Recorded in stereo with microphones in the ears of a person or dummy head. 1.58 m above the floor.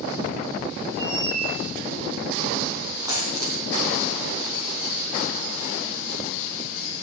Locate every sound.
1.0 s a squeak: 70° right (ahead or behind), 3 m
3.1 s a dropped coin: 20° right (ahead or behind), 3.5 m